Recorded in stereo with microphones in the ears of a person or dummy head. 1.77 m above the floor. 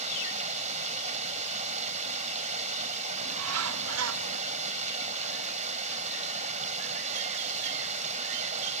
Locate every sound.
0.0 s running water: 40° right (ahead or behind)
3.2 s a bird: 80° right